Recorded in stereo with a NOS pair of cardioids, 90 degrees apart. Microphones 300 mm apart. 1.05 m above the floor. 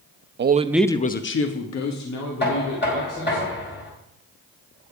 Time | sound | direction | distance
0.4 | a man speaking | 35° right | 0.9 m
2.4 | knocking | 35° left | 4.5 m